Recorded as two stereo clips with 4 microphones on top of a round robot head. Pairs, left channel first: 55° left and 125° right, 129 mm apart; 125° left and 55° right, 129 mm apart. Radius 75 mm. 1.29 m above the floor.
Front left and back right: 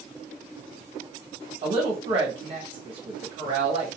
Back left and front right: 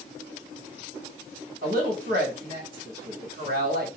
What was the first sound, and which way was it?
A woman speaking, 75° right.